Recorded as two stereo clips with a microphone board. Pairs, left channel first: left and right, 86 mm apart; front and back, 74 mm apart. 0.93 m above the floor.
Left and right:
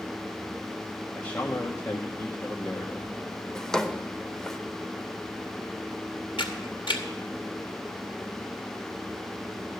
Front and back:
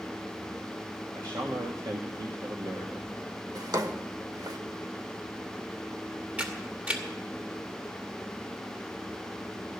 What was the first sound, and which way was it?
A man speaking, 155° left.